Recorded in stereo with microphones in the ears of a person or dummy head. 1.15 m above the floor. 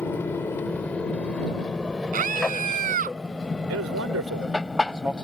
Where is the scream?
45° right (ahead or behind).